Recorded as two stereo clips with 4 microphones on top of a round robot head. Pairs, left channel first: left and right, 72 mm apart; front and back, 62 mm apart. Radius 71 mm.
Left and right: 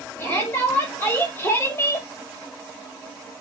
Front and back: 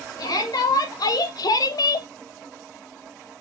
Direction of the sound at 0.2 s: 25° left.